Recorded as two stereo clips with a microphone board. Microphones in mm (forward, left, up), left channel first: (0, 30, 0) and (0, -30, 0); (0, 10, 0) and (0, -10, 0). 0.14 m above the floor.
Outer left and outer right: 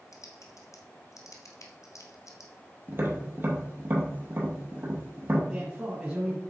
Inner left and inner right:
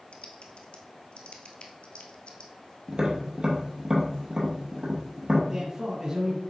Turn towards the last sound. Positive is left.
turn(degrees=-20)  # may be behind; listen again after turning